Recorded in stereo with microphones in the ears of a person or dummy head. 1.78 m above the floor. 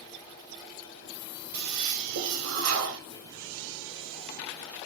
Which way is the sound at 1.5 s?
85° right.